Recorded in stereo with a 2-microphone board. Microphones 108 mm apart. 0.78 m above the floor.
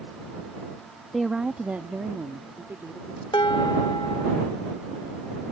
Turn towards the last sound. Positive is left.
turn(degrees=55)  # may be behind; listen again after turning